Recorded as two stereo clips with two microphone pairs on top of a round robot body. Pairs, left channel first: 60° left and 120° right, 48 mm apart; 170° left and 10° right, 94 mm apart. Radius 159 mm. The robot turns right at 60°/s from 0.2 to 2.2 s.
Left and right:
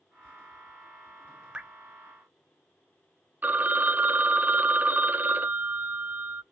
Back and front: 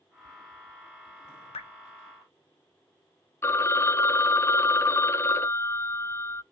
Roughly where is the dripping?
Behind.